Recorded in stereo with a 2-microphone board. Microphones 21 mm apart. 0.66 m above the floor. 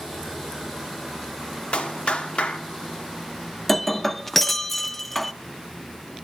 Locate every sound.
1.7 s a clap: 60° left (ahead or behind), 1.2 m
3.7 s breaking glass: 10° left (ahead or behind), 0.5 m